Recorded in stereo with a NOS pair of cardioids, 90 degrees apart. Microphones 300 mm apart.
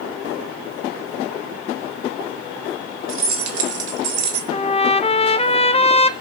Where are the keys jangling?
45° right, 3 m; by 4.4 s 65° right, 3 m.